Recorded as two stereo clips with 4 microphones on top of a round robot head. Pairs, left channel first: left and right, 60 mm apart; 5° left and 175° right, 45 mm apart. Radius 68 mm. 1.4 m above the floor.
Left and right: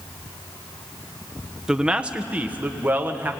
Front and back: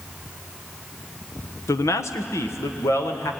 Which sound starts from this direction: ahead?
A man speaking, at 1.7 s.